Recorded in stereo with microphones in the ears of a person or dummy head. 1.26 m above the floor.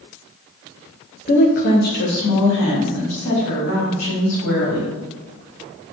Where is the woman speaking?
35° left (ahead or behind), 0.5 m; by 4.9 s 70° left (ahead or behind), 2.5 m.